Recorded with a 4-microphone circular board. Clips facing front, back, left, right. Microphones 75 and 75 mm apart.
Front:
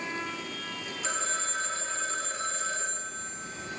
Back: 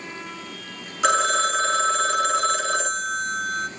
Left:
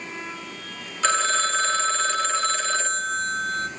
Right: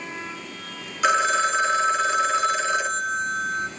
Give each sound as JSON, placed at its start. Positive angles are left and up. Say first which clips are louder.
{"t": 1.0, "sound": "a phone ringing", "louder": "back 14 dB, right 3 dB", "azimuth_deg": -165, "distance_m": 1.0}